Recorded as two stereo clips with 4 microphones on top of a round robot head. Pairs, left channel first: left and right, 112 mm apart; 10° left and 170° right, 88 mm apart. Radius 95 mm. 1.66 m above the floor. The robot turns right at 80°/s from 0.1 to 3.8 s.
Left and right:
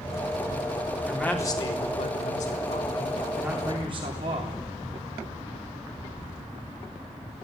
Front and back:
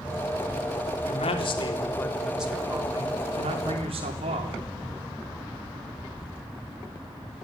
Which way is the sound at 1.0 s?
5° right.